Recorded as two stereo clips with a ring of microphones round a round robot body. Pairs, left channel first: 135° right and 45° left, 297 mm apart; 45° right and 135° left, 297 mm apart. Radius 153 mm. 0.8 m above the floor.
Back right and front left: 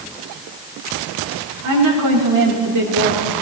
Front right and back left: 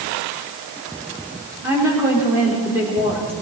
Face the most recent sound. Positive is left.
turn(degrees=55)